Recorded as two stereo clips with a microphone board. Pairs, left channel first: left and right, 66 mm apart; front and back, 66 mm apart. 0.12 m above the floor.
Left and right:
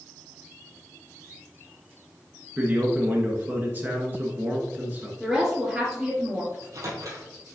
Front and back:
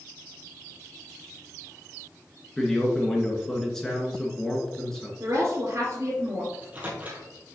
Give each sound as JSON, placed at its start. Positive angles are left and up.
{"t": 2.6, "sound": "a man speaking", "azimuth_deg": -75, "distance_m": 1.6}
{"t": 5.2, "sound": "a woman speaking", "azimuth_deg": -170, "distance_m": 2.5}
{"t": 6.5, "sound": "a microwave", "azimuth_deg": -115, "distance_m": 2.0}